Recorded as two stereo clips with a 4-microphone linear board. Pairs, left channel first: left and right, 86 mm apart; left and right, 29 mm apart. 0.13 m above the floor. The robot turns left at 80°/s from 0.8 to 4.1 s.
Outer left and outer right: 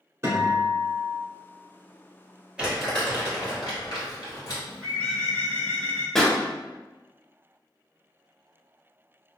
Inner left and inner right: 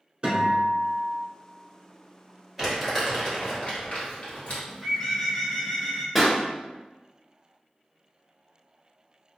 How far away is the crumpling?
About 1.8 m.